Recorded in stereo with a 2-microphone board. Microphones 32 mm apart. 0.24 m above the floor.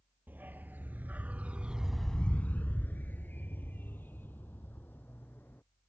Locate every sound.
0.3 s a dog barking: 70° right (ahead or behind); by 5.6 s 85° left